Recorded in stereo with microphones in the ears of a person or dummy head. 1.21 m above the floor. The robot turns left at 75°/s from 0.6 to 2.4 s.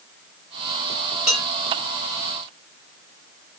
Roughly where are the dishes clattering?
Centre.